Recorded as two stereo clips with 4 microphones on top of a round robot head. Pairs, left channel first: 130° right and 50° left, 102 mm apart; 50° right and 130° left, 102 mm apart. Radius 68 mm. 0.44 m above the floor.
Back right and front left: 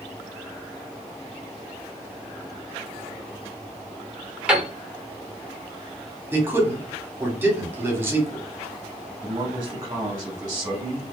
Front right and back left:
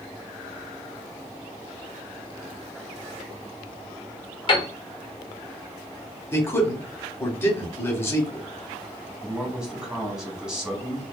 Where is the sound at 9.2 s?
50° left, 1.0 m.